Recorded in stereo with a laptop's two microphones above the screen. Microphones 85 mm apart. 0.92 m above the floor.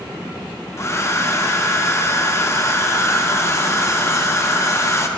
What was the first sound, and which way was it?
A hair dryer, 35° left (ahead or behind).